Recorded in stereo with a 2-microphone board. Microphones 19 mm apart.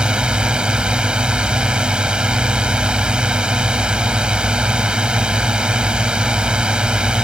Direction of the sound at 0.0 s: 60° right (ahead or behind).